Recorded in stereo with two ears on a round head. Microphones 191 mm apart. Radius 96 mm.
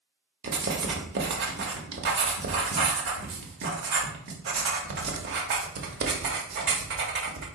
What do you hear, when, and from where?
0.4 s writing: 55° right (ahead or behind), 1.0 m